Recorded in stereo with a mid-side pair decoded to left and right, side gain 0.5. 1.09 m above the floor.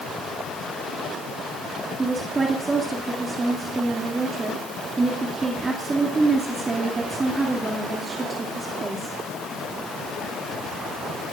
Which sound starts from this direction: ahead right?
A woman speaking, at 2.0 s.